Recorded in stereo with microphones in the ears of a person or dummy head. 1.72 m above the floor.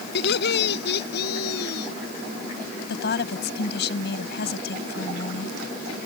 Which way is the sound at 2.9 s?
65° left (ahead or behind).